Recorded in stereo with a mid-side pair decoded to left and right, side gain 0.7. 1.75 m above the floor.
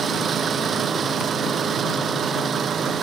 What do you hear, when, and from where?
0.0 s an engine running: 30° right